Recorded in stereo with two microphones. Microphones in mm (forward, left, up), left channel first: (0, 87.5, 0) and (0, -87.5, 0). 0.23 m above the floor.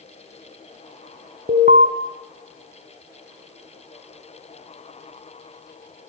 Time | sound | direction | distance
1.5 | an alarm | 55° right (ahead or behind) | 1.7 m